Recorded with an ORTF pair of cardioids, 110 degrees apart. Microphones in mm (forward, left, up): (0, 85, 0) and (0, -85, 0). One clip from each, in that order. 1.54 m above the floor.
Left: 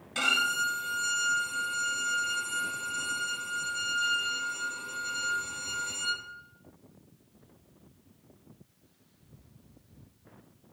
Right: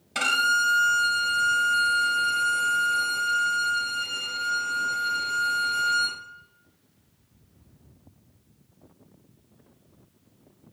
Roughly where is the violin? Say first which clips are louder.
Right 5 dB; ahead right.